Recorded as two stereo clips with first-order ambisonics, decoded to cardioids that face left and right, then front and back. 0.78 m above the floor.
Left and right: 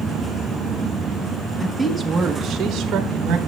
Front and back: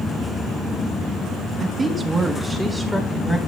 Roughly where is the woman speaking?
Behind left.